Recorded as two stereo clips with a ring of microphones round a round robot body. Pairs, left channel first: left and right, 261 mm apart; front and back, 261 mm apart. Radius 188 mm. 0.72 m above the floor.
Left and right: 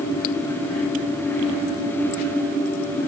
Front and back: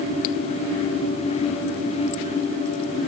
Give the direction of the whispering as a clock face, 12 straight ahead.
I don't hear whispering.